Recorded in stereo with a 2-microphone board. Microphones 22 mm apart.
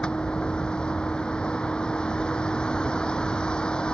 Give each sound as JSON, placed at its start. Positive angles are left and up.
{"t": 0.0, "sound": "a vehicle", "side_deg": 45}